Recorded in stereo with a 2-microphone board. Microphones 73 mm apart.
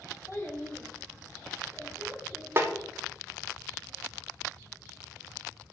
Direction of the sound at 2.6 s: 35° right (ahead or behind).